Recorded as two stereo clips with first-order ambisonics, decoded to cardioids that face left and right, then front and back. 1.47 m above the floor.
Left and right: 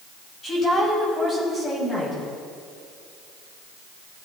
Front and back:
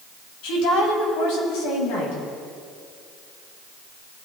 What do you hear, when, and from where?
0.4 s a woman speaking: 15° left, 7.5 m